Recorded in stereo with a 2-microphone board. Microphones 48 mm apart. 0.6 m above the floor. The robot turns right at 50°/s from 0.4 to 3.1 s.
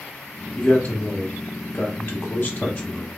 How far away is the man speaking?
About 0.9 m.